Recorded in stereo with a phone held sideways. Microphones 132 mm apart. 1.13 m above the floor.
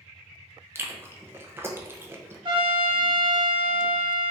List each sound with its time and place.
0.8 s chewing: 20° right (ahead or behind), 0.6 m
2.5 s a trumpet: 35° right (ahead or behind), 0.9 m